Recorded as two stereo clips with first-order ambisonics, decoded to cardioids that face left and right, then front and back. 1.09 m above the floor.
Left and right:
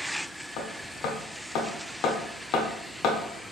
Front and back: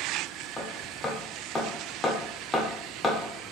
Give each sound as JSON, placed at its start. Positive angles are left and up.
{"t": 0.6, "sound": "hammering", "azimuth_deg": 75, "distance_m": 0.9}